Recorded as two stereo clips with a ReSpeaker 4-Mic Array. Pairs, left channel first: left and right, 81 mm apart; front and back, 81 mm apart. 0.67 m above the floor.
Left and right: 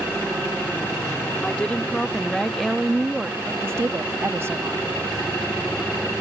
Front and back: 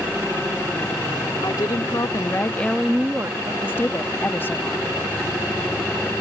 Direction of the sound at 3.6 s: 50° right.